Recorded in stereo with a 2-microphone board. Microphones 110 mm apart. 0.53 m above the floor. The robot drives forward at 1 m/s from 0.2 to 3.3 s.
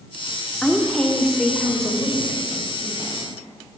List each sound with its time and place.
0.6 s a woman speaking: 5° left (ahead or behind), 1.1 m; by 3.3 s centre (ahead or behind), 3.5 m